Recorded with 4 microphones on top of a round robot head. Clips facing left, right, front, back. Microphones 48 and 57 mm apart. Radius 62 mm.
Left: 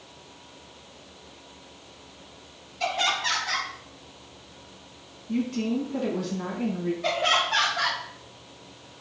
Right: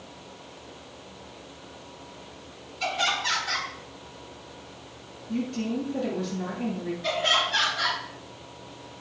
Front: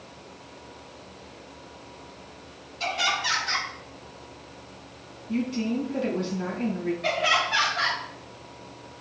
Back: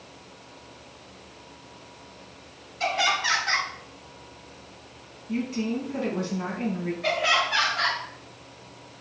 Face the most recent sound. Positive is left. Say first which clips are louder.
# even, back 1 dB
turn(degrees=100)